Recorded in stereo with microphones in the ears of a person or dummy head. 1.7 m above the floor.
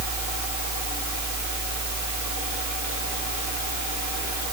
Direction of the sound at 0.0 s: 50° left (ahead or behind).